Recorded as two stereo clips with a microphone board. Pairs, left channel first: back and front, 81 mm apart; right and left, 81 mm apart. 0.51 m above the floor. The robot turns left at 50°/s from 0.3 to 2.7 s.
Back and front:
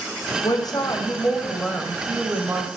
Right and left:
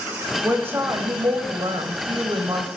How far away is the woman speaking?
About 1.9 m.